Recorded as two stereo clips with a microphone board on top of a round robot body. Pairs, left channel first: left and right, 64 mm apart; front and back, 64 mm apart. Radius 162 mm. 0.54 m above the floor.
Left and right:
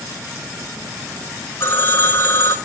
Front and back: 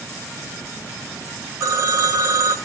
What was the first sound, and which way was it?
A phone ringing, 140° left.